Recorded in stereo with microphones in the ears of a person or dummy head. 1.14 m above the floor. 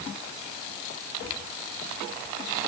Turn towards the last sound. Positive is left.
No sound to turn to.